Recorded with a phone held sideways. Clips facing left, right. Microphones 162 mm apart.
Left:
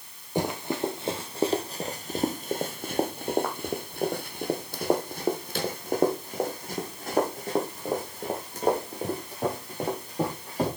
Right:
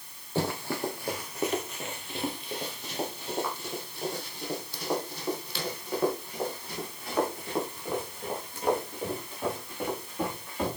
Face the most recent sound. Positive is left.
turn(degrees=40)  # may be behind; listen again after turning